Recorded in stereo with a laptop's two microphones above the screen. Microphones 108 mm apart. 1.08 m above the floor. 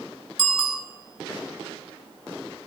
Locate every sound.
0.4 s a bicycle bell: 5° right (ahead or behind), 7 m